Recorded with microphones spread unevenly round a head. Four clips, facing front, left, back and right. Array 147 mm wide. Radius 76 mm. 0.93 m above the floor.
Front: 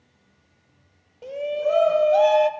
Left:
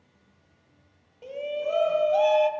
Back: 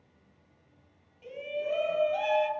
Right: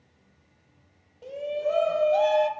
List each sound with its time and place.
1.2 s a shout: 5° left, 5 m; by 2.5 s straight ahead, 4 m